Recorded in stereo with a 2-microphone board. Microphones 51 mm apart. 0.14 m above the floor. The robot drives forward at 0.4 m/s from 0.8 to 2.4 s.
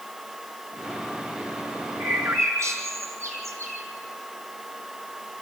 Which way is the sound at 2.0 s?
75° right (ahead or behind).